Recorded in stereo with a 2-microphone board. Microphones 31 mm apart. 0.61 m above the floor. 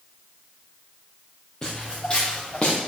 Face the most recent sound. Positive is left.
turn(degrees=45)  # may be behind; listen again after turning